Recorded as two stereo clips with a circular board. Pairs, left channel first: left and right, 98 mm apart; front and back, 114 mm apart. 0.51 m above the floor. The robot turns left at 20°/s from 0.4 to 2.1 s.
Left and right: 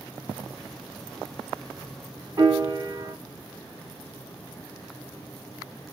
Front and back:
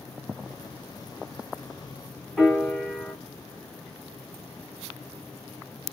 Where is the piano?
90° right, 1.5 m.